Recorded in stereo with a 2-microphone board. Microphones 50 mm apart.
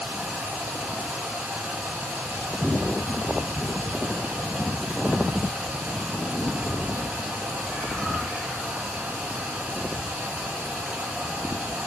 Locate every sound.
0.0 s running water: 25° right (ahead or behind), 8 m